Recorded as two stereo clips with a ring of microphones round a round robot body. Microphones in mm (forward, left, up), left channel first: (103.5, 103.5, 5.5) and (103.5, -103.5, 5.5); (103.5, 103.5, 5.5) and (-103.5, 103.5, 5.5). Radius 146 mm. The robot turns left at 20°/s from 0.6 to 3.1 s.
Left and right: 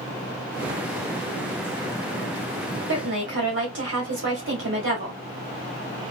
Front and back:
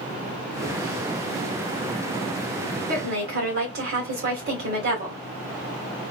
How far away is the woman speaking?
About 1.8 m.